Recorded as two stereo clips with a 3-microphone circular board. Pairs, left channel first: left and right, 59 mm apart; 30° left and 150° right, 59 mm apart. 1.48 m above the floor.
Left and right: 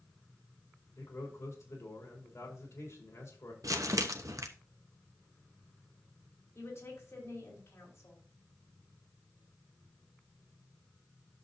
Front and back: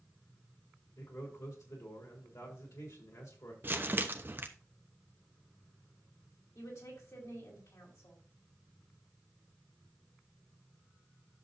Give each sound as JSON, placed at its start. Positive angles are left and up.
{"t": 1.0, "sound": "a man speaking", "azimuth_deg": 50, "distance_m": 4.0}
{"t": 3.6, "sound": "crumpling", "azimuth_deg": -95, "distance_m": 1.0}
{"t": 6.5, "sound": "a woman speaking", "azimuth_deg": 50, "distance_m": 4.5}